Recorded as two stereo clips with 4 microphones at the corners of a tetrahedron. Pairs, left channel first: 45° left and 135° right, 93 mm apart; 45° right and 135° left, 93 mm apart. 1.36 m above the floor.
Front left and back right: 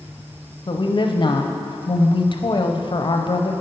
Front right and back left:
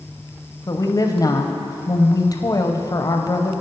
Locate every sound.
0.7 s a woman speaking: 10° left, 0.6 m